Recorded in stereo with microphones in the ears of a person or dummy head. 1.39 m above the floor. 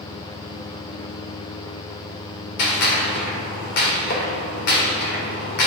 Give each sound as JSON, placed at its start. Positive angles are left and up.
{"t": 2.6, "sound": "a gunshot", "side_deg": 65, "distance_m": 2.5}